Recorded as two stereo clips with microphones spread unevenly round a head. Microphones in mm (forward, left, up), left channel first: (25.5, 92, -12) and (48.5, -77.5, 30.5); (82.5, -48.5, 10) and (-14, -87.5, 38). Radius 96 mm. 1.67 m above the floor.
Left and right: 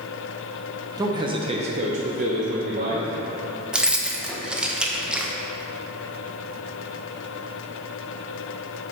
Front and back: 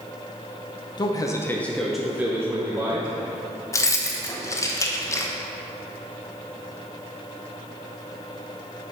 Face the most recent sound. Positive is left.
turn(degrees=-35)